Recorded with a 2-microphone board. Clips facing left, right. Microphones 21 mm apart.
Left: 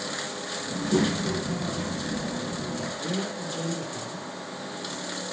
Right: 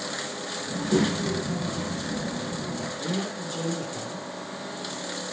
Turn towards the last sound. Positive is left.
turn(degrees=-10)  # may be behind; listen again after turning